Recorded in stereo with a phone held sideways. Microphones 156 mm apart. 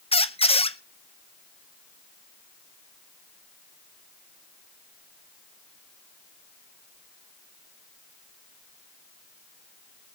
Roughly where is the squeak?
Left.